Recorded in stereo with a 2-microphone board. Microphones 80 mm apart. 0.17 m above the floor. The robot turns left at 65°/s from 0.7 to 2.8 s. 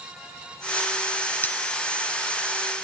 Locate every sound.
1.4 s cutlery clinking: 25° left (ahead or behind), 1.1 m; by 1.6 s 20° left (ahead or behind), 1.1 m